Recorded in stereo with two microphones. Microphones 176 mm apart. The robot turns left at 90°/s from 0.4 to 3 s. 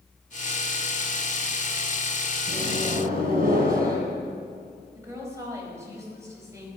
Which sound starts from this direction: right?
A microwave, at 2.5 s.